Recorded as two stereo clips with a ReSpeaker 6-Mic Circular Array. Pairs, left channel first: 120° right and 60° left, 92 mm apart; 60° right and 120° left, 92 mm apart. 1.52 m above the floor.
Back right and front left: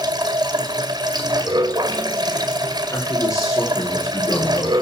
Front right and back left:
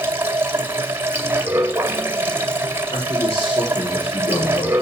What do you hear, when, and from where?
0.0 s running water: 60° left, 1.8 m
2.9 s a man speaking: 75° right, 5 m